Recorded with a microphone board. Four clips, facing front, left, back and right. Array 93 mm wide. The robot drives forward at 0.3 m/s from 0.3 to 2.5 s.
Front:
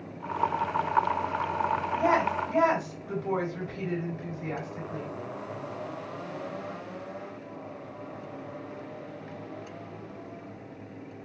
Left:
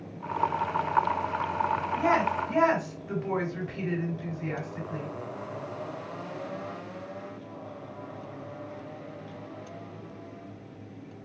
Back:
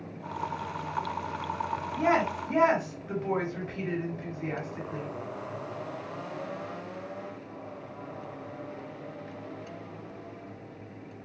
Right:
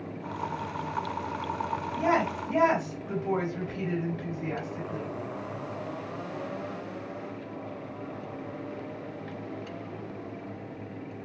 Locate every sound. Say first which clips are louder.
2.0 s a woman speaking: even, even; 150° left, 1.7 m; by 5.1 s 155° left, 1.8 m